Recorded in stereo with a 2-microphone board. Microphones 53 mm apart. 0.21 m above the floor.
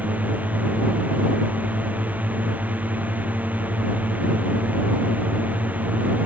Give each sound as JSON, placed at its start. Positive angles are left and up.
{"t": 0.0, "sound": "a drone", "side_deg": -30}